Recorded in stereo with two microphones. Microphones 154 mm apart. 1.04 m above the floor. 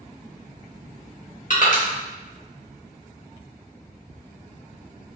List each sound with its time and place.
1.5 s crushing: 55° left (ahead or behind), 1.2 m